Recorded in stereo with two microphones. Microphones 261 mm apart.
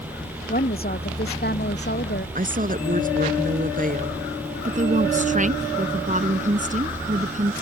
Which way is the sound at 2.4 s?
30° right (ahead or behind).